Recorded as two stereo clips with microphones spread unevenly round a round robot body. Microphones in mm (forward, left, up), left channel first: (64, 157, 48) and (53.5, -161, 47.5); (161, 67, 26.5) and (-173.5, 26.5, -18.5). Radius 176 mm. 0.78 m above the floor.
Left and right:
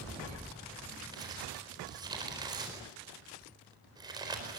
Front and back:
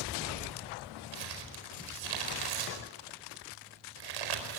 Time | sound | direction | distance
1.1 | crumpling | 170° right | 4.5 m